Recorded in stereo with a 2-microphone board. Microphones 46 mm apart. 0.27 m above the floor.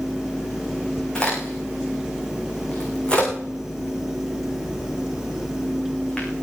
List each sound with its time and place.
1.1 s a crack: 20° left (ahead or behind), 6 m